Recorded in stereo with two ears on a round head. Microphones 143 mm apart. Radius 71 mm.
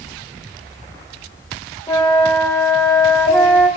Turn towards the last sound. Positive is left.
turn(degrees=15)  # may be behind; listen again after turning